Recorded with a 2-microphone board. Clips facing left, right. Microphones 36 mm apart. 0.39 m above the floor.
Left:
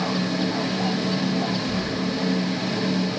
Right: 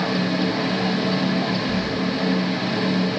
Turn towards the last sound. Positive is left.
turn(degrees=30)  # may be behind; listen again after turning